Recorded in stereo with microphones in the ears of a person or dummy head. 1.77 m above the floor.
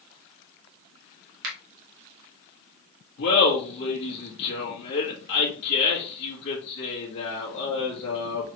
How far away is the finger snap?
About 1.5 m.